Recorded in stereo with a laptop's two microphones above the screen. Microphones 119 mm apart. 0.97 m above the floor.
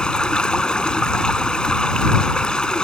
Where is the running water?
5° left (ahead or behind).